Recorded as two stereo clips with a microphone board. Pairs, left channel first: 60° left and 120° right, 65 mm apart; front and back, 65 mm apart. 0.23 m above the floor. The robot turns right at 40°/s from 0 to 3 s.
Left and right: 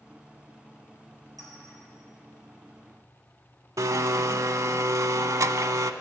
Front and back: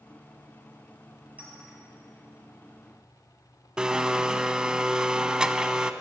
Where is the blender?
105° right, 0.5 m.